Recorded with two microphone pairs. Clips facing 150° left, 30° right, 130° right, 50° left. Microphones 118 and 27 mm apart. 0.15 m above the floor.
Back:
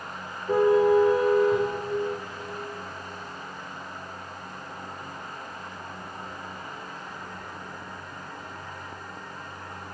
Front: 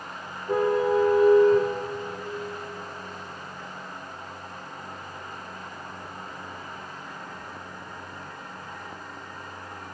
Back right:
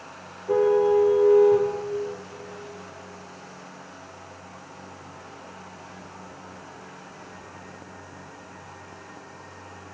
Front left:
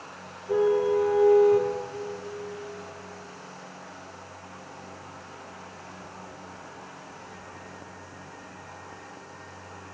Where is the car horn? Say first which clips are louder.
Back 3 dB, back right 3 dB; 130° right, 5 m.